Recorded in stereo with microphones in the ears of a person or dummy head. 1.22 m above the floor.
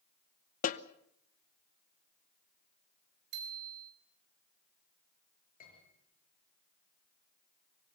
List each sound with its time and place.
0.6 s a snare drum: 40° left (ahead or behind), 0.8 m
3.3 s a bicycle bell: 60° right (ahead or behind), 4.5 m
5.6 s a piano: 45° left (ahead or behind), 7 m